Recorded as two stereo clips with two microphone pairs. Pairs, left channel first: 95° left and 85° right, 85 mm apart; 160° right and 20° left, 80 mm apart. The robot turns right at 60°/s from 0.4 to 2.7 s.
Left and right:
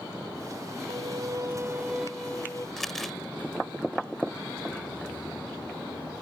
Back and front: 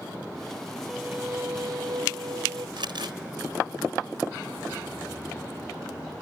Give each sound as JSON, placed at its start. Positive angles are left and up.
{"t": 0.9, "sound": "a violin", "azimuth_deg": -70}
{"t": 2.8, "sound": "crumpling", "azimuth_deg": 5}